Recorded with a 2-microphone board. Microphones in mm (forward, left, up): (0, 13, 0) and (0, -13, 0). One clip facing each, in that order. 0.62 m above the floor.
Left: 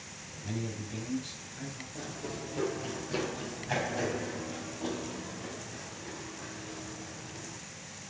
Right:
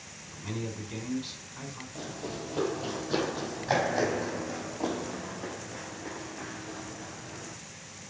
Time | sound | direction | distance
0.3 | a man speaking | 55° right (ahead or behind) | 4.5 m
1.9 | running footsteps | 15° right (ahead or behind) | 1.2 m